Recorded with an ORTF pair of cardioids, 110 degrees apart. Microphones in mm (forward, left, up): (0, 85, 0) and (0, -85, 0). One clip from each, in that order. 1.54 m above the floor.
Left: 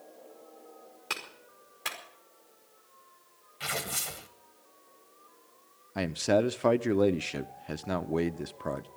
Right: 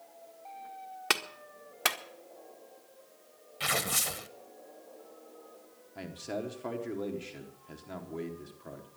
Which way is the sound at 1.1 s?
70° right.